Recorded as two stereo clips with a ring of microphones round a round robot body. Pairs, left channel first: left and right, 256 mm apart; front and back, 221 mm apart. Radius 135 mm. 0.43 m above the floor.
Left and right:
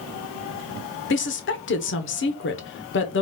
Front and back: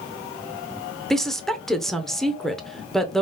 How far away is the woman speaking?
About 1.0 m.